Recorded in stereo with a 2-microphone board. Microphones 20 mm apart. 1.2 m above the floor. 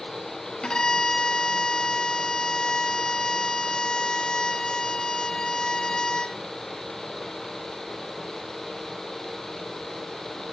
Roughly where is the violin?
Left.